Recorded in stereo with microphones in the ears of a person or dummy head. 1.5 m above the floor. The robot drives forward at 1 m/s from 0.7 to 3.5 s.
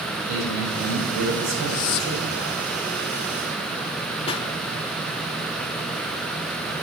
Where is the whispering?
40° left (ahead or behind), 0.6 m; by 2.3 s 45° left (ahead or behind), 0.5 m.